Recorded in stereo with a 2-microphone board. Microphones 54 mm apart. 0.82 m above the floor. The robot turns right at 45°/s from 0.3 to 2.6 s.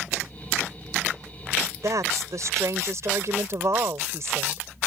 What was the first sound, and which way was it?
A woman speaking, 100° right.